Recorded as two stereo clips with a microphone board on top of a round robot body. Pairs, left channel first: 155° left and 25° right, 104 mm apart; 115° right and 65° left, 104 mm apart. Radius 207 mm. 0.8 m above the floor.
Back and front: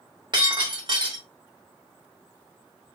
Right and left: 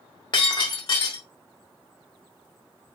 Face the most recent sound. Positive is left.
turn(degrees=-70)